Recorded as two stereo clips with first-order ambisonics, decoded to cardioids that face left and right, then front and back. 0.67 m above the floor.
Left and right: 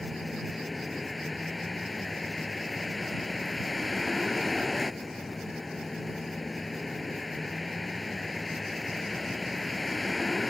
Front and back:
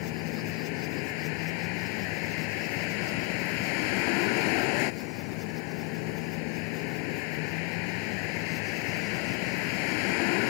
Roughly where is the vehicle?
Ahead.